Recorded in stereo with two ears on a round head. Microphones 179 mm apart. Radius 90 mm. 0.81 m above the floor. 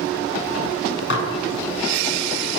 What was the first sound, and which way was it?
Dishes clattering, 65° left (ahead or behind).